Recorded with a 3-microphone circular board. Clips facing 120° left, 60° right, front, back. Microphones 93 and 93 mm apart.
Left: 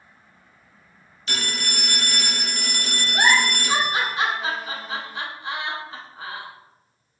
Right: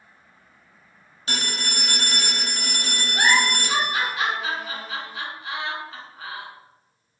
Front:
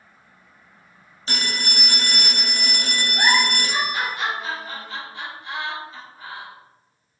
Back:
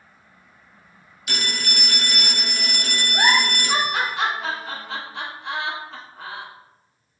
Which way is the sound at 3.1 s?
175° left.